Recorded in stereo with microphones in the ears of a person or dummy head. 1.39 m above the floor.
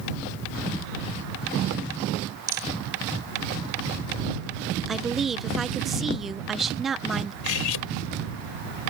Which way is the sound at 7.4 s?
80° left.